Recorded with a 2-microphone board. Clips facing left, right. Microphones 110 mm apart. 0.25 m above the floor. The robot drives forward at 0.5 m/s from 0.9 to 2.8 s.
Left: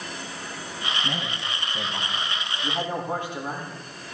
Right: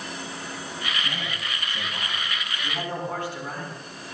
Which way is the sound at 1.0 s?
20° left (ahead or behind).